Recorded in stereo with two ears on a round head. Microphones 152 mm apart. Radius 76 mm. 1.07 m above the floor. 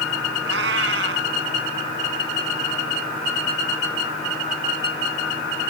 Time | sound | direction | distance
0.5 | a cat meowing | 80° right | ?